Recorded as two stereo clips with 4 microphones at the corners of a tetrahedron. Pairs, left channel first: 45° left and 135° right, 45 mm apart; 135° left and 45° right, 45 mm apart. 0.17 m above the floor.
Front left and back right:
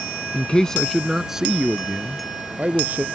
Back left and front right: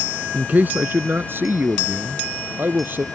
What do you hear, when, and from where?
0.3 s a man speaking: 5° right; by 3.0 s 85° right